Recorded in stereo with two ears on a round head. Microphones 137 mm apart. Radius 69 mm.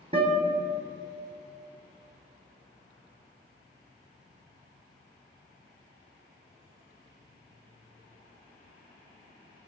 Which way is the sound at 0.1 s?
35° right (ahead or behind).